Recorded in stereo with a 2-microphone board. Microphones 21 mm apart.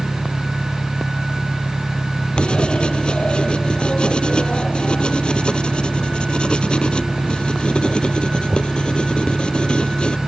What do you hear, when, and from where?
0.0 s an engine running: 65° left (ahead or behind)
2.4 s writing: 60° left (ahead or behind)